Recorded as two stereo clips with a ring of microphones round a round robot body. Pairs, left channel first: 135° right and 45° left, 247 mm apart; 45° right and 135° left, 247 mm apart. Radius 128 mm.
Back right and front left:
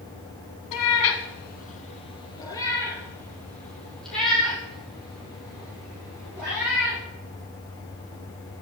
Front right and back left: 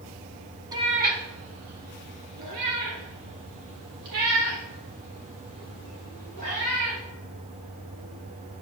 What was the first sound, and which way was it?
A cat meowing, 150° right.